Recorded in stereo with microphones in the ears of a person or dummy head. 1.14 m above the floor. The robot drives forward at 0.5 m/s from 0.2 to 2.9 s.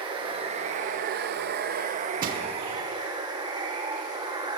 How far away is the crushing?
About 0.8 m.